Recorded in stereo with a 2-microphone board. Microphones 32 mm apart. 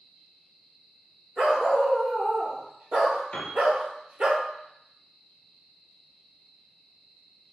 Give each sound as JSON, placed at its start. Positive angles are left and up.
{"t": 1.4, "sound": "a dog barking", "side_deg": -45, "distance_m": 1.6}
{"t": 3.3, "sound": "a piano", "side_deg": 40, "distance_m": 1.2}